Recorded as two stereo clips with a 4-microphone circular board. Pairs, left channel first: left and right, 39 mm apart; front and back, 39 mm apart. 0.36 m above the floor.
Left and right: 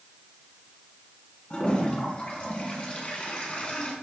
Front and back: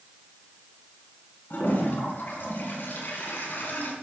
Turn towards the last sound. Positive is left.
turn(degrees=30)